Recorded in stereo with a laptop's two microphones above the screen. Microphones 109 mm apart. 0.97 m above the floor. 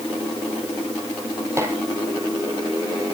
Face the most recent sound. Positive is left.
turn(degrees=-25)  # may be behind; listen again after turning